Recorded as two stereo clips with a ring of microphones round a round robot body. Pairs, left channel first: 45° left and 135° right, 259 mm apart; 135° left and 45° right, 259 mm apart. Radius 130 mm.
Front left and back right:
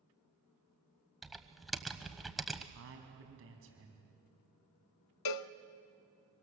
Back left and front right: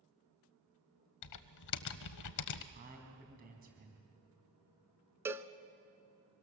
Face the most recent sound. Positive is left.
turn(degrees=35)